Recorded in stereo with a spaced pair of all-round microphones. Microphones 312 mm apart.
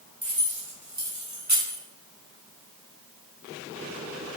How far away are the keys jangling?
About 4 m.